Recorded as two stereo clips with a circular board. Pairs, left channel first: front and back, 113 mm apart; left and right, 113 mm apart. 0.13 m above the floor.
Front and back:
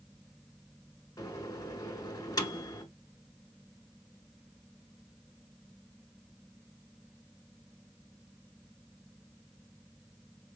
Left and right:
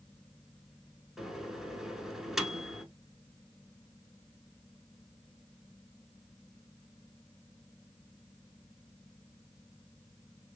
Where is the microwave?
5° right, 1.0 m.